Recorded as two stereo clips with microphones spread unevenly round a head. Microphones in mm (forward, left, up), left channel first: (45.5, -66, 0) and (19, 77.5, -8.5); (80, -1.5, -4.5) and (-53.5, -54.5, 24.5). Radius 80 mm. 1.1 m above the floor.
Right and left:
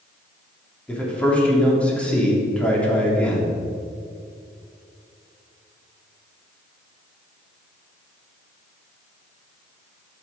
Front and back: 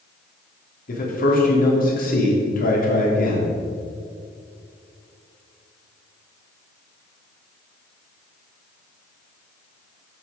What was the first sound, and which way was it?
A man speaking, 5° left.